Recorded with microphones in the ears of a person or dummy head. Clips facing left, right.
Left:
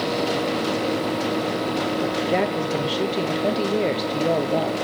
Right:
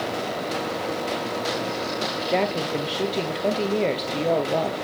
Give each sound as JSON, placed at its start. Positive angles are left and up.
{"t": 2.3, "sound": "a woman speaking", "side_deg": 5, "distance_m": 1.2}